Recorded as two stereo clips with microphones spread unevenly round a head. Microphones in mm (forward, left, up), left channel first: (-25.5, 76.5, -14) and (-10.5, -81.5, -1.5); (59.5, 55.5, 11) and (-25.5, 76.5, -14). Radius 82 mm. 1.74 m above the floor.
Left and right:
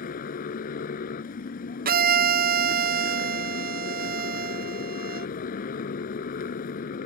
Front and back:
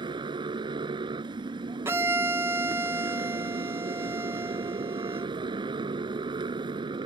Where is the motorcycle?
130° left.